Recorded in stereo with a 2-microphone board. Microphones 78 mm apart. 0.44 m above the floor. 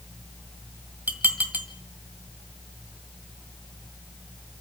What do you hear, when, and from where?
1.1 s dishes clattering: 25° right (ahead or behind), 1.9 m